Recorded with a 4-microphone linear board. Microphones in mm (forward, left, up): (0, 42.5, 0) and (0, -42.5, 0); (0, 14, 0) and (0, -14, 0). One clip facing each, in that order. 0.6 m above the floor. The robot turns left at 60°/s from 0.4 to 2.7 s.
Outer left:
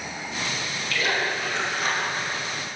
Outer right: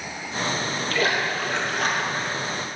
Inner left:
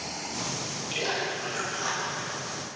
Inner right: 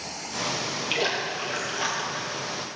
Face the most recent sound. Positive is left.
turn(degrees=-150)